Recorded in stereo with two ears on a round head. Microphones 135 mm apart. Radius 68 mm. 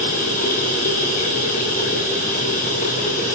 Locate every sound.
0.0 s running water: 55° left (ahead or behind), 7 m